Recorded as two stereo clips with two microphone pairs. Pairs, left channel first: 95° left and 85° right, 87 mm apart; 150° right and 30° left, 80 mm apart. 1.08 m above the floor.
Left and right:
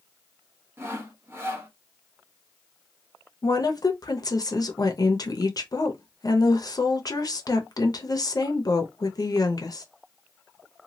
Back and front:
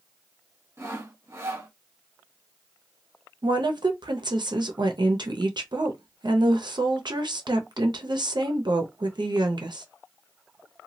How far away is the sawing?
About 0.9 m.